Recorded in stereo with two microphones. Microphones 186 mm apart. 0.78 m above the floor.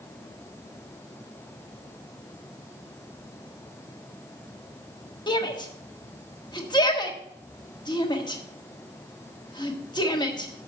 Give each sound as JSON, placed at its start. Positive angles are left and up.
{"t": 5.3, "sound": "a shout", "side_deg": 25, "distance_m": 1.4}